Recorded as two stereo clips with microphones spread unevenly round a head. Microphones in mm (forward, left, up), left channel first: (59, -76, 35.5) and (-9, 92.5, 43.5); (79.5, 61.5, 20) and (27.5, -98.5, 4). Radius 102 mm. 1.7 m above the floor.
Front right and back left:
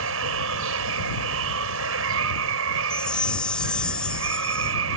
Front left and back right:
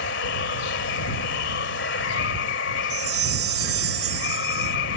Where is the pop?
No pop in this recording.